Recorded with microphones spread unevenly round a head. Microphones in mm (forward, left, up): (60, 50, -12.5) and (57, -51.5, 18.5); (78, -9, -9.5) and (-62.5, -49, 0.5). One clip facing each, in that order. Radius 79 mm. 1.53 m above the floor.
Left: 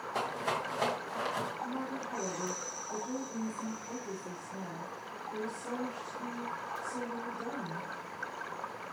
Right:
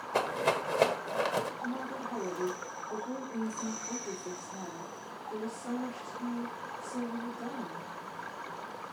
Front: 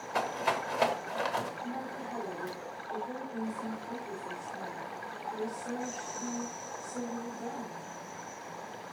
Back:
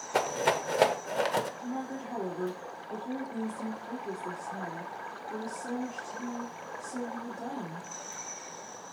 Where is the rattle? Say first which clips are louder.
Right 5 dB, back 4 dB; 135° right, 1.2 m.